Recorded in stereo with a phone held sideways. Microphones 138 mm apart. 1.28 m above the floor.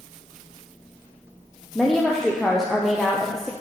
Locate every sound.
1.8 s a woman speaking: 5° left (ahead or behind), 0.6 m